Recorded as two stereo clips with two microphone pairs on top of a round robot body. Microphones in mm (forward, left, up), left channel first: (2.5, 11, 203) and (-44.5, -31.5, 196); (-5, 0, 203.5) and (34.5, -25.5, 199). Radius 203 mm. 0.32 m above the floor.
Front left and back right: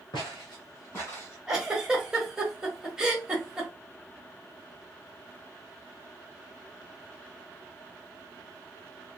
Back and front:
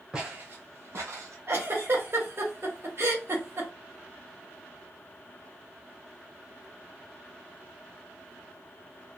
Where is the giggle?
60° right, 1.3 m.